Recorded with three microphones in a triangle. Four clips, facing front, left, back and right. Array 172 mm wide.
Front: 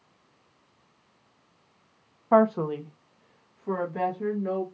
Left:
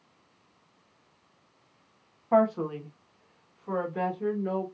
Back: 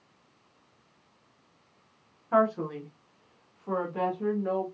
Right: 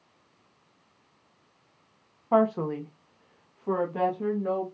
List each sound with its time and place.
2.3 s a woman speaking: 15° right, 0.7 m; by 4.7 s 85° right, 1.9 m